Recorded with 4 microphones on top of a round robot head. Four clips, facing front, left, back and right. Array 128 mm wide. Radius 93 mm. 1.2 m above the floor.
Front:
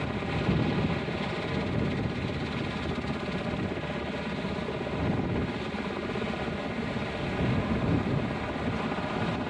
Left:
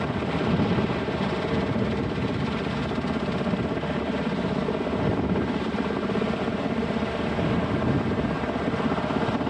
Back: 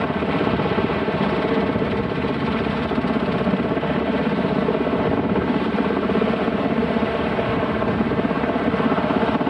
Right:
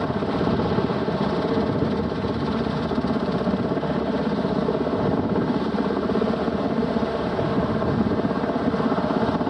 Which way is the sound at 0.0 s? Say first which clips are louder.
Right 3 dB, back 11 dB; 150° right.